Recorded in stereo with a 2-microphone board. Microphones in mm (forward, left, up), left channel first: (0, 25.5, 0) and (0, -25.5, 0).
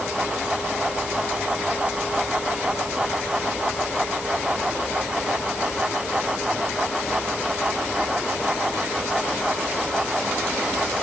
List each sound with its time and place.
Only background noise.